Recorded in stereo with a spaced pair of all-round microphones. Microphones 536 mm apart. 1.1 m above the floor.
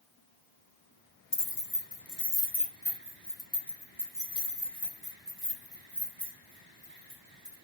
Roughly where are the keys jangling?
Left.